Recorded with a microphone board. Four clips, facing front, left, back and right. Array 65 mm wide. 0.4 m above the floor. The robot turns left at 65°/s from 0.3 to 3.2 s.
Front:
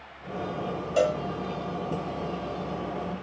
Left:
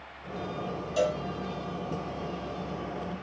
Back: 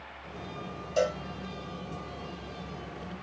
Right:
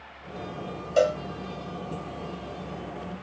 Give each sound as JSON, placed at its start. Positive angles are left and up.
{"t": 1.0, "sound": "a cowbell", "azimuth_deg": -65, "distance_m": 1.8}